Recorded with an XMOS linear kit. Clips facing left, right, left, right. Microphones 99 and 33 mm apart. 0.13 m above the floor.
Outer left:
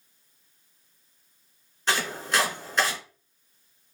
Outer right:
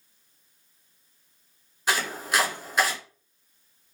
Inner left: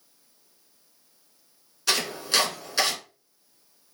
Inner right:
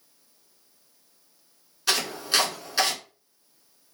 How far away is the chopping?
About 1.4 m.